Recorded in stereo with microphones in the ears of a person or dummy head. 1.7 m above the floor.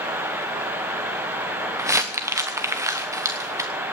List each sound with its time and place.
1.8 s crumpling: 10° right (ahead or behind), 1.0 m